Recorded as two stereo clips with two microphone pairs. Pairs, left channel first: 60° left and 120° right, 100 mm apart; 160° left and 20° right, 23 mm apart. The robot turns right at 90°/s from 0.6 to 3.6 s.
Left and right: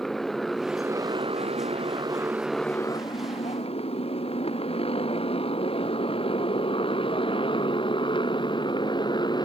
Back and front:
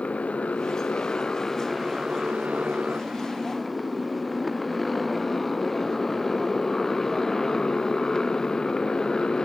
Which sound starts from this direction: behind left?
A motorcycle, at 0.0 s.